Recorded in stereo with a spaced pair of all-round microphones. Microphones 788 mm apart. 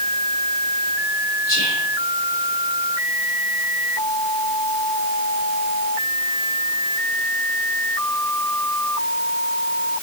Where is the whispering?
30° left (ahead or behind), 2.5 m.